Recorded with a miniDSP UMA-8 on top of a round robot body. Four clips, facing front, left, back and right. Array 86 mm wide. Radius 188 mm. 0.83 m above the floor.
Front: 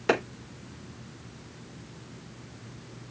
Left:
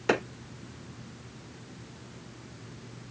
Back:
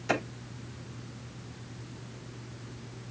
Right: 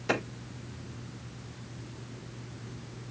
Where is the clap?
35° left, 3.5 m.